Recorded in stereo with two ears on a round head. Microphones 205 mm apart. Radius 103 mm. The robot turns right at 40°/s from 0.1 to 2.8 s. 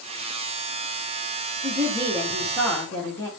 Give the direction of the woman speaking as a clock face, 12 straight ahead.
1 o'clock.